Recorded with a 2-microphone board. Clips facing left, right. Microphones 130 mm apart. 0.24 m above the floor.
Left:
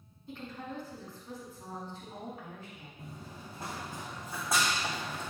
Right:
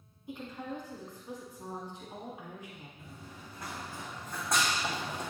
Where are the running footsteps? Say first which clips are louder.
Left 2 dB; 40° left (ahead or behind), 1.5 m; by 5.3 s 20° right (ahead or behind), 1.3 m.